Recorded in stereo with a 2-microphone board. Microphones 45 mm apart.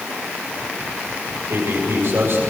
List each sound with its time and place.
1.5 s a man speaking: 60° right (ahead or behind), 7 m